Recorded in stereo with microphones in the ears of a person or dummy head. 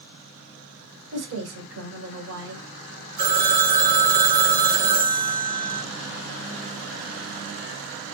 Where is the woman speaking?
75° right (ahead or behind), 1.7 m.